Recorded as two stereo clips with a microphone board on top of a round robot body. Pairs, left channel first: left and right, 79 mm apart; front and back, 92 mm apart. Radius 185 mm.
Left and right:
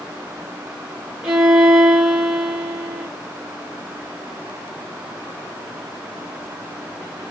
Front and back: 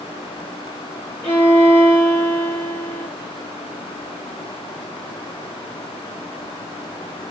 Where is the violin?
15° right, 0.7 m.